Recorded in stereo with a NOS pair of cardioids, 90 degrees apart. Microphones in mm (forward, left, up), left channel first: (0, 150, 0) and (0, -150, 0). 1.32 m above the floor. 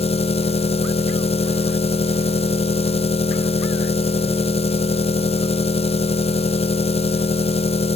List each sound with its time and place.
0.0 s an engine running: 20° left, 0.9 m